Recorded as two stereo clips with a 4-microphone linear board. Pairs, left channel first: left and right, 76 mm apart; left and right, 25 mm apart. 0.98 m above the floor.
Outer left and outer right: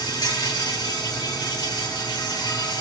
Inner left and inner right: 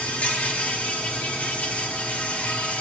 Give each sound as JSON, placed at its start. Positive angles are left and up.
{"t": 0.0, "sound": "an insect", "side_deg": 70, "distance_m": 1.9}